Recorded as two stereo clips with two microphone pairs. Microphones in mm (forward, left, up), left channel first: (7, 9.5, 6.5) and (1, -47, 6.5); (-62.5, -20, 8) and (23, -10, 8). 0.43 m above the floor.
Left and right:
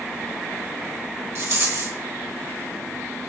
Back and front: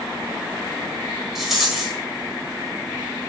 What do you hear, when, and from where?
1.4 s a rattle: 80° right, 1.6 m